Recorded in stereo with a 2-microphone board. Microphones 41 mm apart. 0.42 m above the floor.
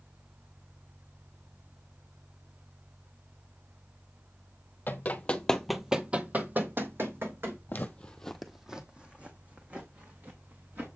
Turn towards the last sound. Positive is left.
turn(degrees=-45)  # may be behind; listen again after turning